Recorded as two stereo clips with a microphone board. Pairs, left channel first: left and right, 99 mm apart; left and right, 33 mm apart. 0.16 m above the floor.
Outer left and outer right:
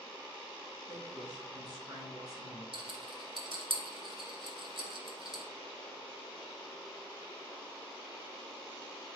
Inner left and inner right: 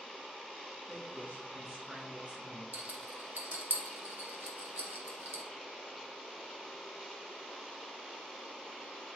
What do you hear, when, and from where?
0.9 s a woman speaking: 45° right (ahead or behind), 2 m; by 2.6 s 35° right (ahead or behind), 2 m
2.7 s a rattle: 55° right (ahead or behind), 1.5 m